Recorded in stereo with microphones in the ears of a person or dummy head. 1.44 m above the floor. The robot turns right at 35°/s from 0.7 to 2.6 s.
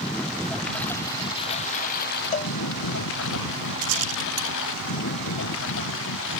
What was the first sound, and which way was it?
A lawn mower, 5° left (ahead or behind).